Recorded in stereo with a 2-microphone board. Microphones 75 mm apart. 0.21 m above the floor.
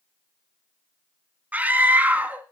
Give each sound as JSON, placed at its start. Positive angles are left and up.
{"t": 1.5, "sound": "a scream", "side_deg": -20, "distance_m": 1.7}